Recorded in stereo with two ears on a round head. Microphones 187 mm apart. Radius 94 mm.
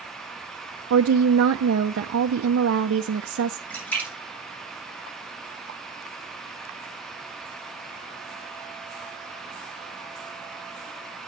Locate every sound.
0.9 s a woman speaking: 65° right (ahead or behind), 0.7 m
3.7 s a splash: 10° left (ahead or behind), 3.5 m